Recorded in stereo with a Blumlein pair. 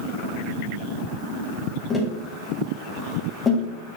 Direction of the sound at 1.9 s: 15° left.